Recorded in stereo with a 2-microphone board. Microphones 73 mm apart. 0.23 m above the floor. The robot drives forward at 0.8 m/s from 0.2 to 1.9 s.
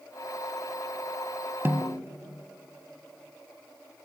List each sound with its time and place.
1.6 s a snare drum: 30° right (ahead or behind), 1.3 m